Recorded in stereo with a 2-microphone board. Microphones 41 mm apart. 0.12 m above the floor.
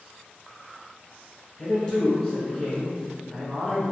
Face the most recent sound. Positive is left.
turn(degrees=15)  # may be behind; listen again after turning